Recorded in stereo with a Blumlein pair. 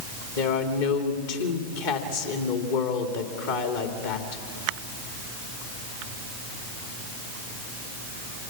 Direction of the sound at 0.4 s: 55° left.